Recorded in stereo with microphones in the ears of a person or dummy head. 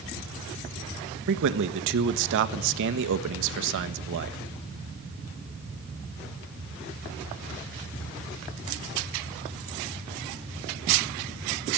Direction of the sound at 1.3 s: 65° right (ahead or behind).